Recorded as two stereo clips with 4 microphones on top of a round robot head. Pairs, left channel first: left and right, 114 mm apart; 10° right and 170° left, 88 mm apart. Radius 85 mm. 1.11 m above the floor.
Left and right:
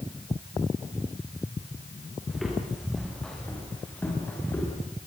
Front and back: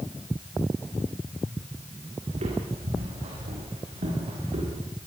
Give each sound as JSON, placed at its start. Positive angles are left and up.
{"t": 2.3, "sound": "footsteps", "azimuth_deg": 180, "distance_m": 6.5}